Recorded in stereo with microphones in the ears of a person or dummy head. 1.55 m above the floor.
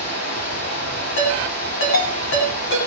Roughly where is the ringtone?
Left.